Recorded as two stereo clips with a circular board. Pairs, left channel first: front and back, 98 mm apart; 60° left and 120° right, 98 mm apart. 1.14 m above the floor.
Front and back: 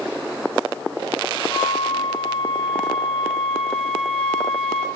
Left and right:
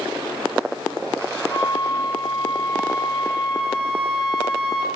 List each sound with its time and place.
1.5 s a flute: 30° left, 0.5 m